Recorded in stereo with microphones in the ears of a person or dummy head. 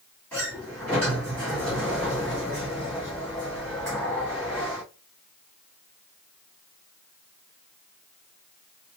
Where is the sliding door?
15° left (ahead or behind), 2.5 m.